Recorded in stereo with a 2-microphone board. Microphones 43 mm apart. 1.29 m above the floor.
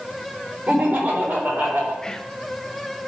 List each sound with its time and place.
0.7 s laughter: 40° right (ahead or behind), 4 m; by 1.9 s 50° right (ahead or behind), 4 m
2.0 s whispering: 20° left (ahead or behind), 0.7 m